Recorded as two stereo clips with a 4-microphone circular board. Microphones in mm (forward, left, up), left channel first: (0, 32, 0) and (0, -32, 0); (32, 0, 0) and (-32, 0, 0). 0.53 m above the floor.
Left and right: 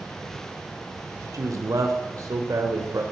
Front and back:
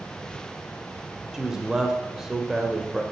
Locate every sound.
1.3 s a man speaking: 100° right, 1.6 m